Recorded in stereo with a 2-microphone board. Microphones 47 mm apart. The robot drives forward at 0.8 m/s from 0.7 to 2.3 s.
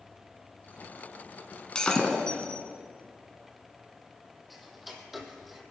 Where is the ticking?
Centre (ahead or behind), 1.4 m.